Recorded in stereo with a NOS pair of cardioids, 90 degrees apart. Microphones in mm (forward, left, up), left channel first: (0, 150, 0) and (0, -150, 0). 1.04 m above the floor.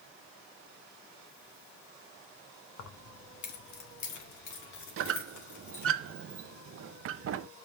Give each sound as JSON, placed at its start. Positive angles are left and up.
{"t": 2.8, "sound": "keys jangling", "azimuth_deg": 55, "distance_m": 1.1}
{"t": 5.0, "sound": "a squeak", "azimuth_deg": -50, "distance_m": 0.6}